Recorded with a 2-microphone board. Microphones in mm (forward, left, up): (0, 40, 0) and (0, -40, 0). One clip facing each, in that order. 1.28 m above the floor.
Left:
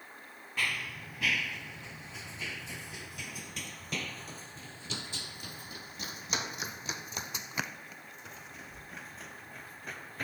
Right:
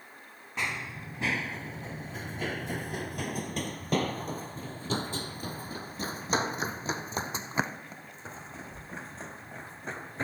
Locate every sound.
0.6 s running footsteps: 20° right (ahead or behind); by 10.2 s 30° right (ahead or behind)